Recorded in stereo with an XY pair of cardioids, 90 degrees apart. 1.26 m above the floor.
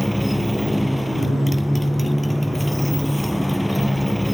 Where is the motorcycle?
Straight ahead.